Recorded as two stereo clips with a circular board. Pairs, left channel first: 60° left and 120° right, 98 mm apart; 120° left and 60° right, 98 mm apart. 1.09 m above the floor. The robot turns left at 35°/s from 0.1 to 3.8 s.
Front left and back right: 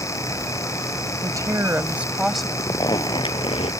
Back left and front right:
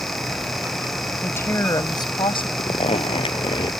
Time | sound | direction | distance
1.2 | a woman speaking | 170° right | ?
2.6 | a zipper | 115° left | ?